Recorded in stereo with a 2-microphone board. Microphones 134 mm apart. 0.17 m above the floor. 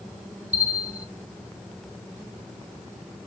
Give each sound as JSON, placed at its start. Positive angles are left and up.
{"t": 0.5, "sound": "a bell", "side_deg": -50, "distance_m": 0.7}